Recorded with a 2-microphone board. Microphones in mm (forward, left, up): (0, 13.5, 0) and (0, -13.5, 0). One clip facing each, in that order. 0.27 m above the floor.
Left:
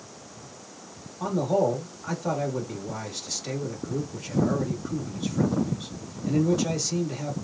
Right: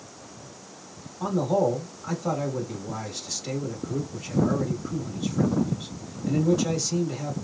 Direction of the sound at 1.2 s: 5° left (ahead or behind).